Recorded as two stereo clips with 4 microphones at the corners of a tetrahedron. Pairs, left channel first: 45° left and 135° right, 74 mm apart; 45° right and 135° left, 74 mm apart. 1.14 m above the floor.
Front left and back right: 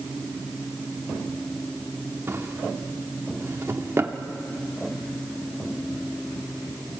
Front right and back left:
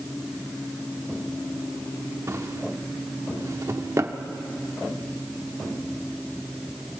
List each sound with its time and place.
2.3 s a drawer: 175° left, 1.1 m